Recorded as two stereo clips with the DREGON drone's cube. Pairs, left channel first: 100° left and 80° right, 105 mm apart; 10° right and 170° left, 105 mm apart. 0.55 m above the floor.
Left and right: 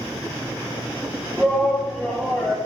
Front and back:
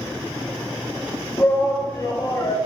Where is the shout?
20° left, 0.8 m.